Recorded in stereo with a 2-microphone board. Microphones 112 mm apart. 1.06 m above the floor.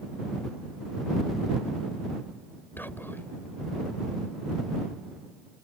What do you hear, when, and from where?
2.8 s whispering: 15° left (ahead or behind)